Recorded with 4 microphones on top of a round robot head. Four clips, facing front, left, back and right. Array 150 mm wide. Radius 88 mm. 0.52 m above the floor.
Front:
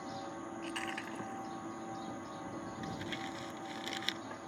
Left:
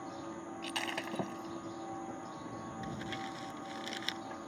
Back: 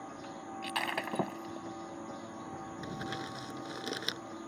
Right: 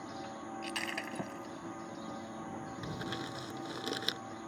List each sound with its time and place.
0.6 s breaking glass: 165° left
2.8 s crumpling: 135° right